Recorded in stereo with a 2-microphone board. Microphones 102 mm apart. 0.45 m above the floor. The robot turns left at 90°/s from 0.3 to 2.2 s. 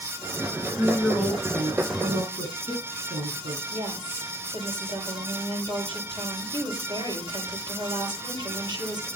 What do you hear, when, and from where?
0.7 s a woman speaking: 50° left, 6 m; by 3.6 s 85° right, 6 m
3.7 s a woman speaking: 45° right (ahead or behind), 9.5 m